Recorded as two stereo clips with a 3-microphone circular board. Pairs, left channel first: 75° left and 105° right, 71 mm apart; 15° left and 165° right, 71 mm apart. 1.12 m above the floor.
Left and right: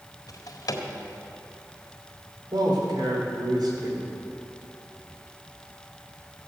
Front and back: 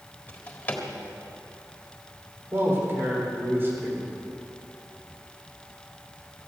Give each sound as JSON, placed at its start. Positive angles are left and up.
{"t": 0.3, "sound": "a drawer", "azimuth_deg": 80, "distance_m": 1.7}
{"t": 2.5, "sound": "a man speaking", "azimuth_deg": -105, "distance_m": 3.5}